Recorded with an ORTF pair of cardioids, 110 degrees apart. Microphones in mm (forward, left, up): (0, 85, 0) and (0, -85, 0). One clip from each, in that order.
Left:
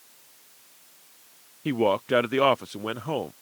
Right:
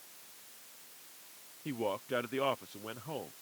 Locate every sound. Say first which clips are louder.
1.6 s a man speaking: left 13 dB; 55° left